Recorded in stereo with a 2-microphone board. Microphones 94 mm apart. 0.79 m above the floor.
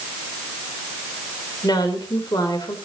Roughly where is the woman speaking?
Left.